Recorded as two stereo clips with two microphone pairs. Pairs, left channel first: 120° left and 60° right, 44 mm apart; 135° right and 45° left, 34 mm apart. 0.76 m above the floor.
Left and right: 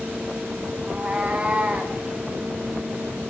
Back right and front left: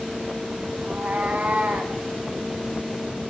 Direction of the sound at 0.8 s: Straight ahead.